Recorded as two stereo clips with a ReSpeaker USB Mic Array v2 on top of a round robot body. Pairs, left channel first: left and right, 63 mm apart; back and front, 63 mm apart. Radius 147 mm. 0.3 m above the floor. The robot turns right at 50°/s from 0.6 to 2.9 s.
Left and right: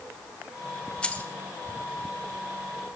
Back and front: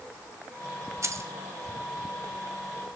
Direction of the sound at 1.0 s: 20° left.